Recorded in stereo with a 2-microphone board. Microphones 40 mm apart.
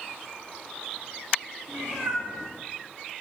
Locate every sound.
1.7 s a cat meowing: 85° right, 7.5 m